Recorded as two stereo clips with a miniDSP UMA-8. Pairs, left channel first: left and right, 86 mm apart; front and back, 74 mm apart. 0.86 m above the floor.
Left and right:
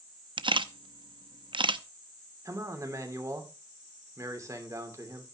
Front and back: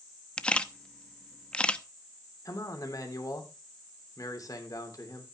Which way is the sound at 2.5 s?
40° right.